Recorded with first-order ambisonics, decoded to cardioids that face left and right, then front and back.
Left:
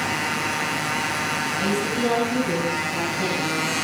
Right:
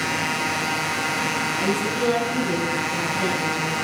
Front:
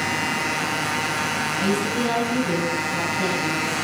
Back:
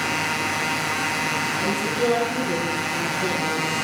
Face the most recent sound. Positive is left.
turn(degrees=50)